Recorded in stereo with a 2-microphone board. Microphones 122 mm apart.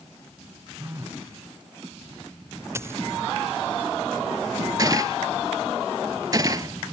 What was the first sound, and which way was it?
A phone buzzing, 25° right (ahead or behind).